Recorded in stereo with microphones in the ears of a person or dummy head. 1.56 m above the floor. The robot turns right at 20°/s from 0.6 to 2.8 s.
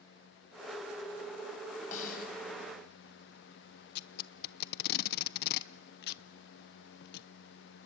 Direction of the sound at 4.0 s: 50° left (ahead or behind).